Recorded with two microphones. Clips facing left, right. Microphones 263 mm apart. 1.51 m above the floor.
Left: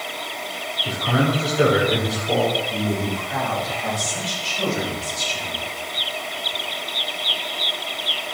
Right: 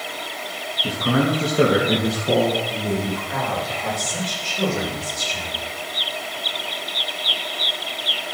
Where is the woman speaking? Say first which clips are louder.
Even; 55° right (ahead or behind), 6 m.